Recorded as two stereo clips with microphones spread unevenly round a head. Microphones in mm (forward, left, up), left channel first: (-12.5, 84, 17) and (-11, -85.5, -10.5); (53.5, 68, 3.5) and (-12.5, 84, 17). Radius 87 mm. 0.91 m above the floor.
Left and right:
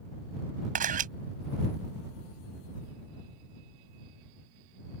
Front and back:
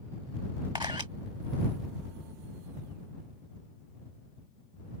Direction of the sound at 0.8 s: 135° right.